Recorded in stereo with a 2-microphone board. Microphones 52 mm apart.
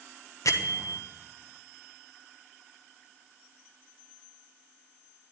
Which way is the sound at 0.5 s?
90° left.